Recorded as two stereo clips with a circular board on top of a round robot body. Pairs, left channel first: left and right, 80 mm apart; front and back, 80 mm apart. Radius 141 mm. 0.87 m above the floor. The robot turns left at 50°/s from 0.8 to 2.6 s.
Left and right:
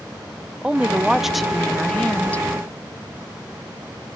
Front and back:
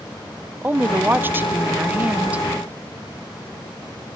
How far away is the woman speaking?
About 0.8 m.